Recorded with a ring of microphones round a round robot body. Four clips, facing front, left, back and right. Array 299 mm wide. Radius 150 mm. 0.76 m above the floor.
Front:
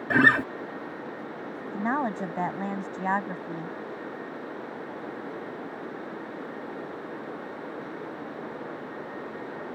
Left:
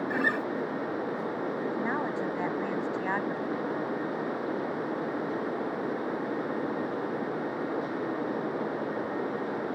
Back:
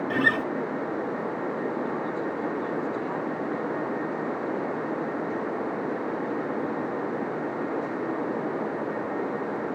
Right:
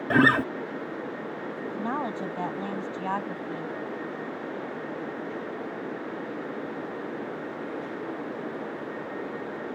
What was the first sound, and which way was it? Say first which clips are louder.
A guitar: right 11 dB, front 5 dB; 70° right.